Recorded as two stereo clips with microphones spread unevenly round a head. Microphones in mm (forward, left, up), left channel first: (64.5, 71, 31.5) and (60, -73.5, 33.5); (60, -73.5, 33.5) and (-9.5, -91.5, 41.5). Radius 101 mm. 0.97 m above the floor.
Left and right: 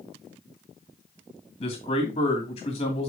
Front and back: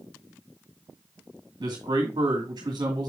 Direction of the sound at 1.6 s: 145° left.